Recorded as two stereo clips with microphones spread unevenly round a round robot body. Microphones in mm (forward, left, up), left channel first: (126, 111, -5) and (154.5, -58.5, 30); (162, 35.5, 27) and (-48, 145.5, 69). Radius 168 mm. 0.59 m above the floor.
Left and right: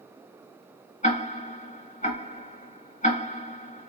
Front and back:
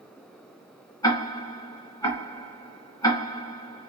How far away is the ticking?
About 1.9 m.